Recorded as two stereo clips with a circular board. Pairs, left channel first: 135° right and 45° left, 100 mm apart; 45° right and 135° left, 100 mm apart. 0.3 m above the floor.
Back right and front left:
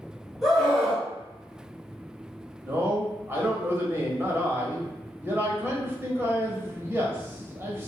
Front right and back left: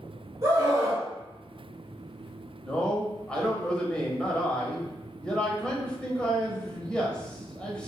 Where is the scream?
130° left, 1.7 m.